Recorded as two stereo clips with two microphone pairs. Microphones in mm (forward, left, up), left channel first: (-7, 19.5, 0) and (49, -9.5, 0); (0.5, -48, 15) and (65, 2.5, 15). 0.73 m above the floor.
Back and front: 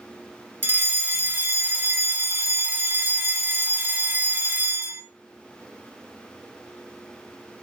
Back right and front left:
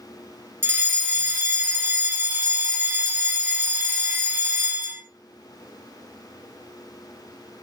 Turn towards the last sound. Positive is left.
turn(degrees=-5)